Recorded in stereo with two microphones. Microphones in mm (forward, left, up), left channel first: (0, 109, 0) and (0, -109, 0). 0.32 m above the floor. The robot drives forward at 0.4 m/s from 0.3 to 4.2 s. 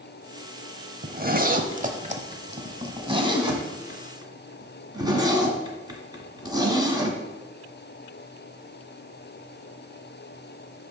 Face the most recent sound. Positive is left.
turn(degrees=-15)  # may be behind; listen again after turning